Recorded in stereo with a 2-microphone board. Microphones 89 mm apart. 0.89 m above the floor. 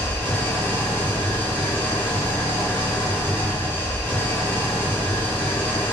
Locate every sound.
0.0 s an engine running: 20° left (ahead or behind), 0.8 m